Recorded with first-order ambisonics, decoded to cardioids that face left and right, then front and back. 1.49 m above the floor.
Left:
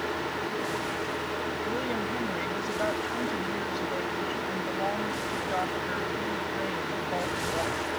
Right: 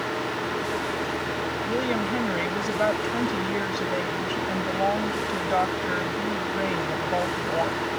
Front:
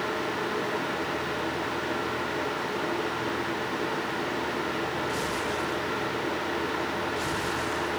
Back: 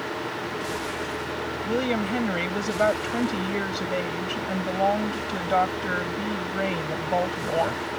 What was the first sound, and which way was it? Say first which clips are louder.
A woman speaking: right 4 dB, back 4 dB; 155° right.